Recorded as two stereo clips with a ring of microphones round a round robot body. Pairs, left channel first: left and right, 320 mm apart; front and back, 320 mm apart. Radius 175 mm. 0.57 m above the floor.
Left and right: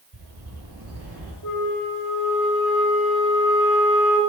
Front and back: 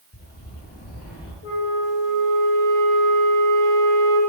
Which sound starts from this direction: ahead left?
A flute, at 1.4 s.